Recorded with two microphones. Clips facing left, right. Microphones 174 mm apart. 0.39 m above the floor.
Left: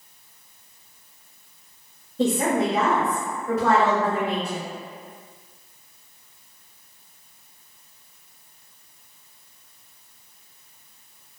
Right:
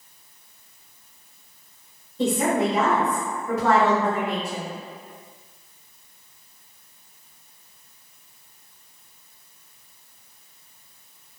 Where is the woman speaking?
35° left (ahead or behind), 1.5 m; by 4.7 s 30° left (ahead or behind), 1.6 m.